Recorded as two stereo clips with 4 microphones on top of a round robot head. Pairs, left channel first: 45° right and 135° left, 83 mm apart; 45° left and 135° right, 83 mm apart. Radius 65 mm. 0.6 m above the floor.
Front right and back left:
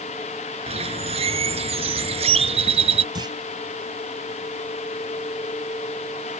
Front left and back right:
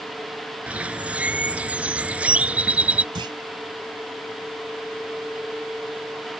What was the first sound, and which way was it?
A bird, 145° left.